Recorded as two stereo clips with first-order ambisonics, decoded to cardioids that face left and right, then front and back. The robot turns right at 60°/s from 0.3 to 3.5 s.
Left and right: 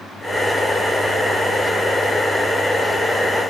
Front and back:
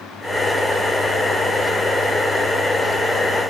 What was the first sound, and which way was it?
Only background noise.